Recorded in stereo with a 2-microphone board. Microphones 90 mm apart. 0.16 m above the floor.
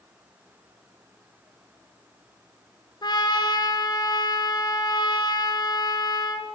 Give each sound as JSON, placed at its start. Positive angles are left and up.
{"t": 3.0, "sound": "a trumpet", "side_deg": 50, "distance_m": 2.0}